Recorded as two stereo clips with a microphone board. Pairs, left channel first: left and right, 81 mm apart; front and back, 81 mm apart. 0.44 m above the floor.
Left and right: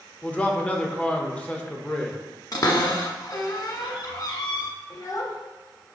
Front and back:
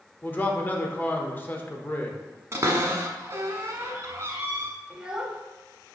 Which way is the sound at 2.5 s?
125° left.